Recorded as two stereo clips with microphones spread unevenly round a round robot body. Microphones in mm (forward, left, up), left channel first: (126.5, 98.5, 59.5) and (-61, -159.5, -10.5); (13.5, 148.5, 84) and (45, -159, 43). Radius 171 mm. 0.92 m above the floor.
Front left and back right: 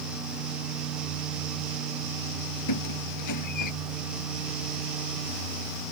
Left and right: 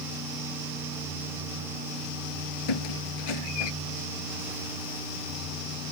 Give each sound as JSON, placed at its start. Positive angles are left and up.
{"t": 2.7, "sound": "a squeak", "azimuth_deg": 95}